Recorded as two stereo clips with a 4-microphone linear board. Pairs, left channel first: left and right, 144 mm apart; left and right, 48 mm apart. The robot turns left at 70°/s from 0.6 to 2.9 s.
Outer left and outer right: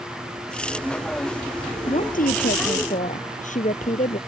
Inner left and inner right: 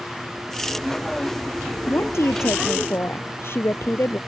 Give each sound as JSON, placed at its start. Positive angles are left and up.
{"t": 1.9, "sound": "a woman speaking", "azimuth_deg": 135}